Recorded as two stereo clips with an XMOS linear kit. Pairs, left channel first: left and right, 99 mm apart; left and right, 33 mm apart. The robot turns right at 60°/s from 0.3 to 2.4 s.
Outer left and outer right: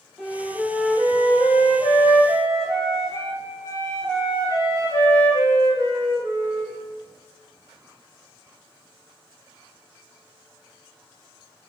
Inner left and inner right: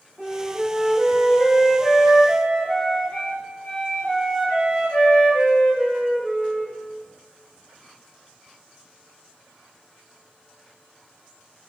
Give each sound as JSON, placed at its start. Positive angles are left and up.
{"t": 0.2, "sound": "a flute", "azimuth_deg": -10, "distance_m": 1.4}